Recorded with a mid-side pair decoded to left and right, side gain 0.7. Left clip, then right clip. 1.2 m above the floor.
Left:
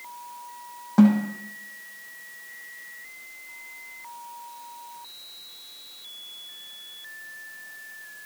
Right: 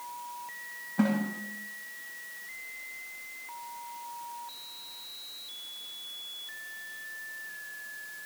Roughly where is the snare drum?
Ahead left.